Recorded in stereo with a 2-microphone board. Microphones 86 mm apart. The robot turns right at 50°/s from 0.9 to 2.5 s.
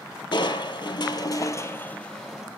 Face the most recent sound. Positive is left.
turn(degrees=-170)